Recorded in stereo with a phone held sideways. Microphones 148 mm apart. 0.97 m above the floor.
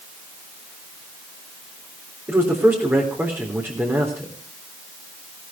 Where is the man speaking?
15° right (ahead or behind), 3.5 m.